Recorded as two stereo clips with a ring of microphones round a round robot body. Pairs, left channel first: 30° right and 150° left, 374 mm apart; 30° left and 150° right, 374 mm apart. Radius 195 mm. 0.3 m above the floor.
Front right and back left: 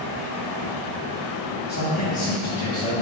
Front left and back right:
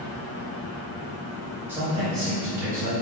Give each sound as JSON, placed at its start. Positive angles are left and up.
{"t": 1.7, "sound": "a man speaking", "azimuth_deg": -70, "distance_m": 0.9}